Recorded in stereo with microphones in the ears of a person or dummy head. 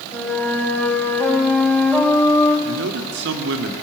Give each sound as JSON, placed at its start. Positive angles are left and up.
{"t": 0.1, "sound": "a flute", "side_deg": 15, "distance_m": 4.5}
{"t": 2.6, "sound": "a man speaking", "side_deg": -80, "distance_m": 2.5}